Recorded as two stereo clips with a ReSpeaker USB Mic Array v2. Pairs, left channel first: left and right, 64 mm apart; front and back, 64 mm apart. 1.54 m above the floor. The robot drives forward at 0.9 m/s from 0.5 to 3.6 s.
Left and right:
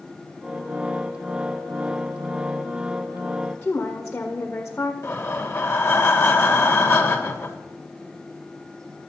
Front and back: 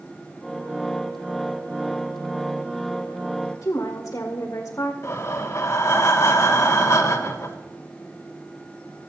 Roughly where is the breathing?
Ahead left.